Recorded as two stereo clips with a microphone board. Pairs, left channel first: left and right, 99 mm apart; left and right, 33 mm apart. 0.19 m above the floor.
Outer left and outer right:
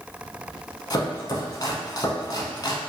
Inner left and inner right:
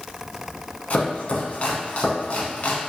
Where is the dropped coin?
I don't hear a dropped coin.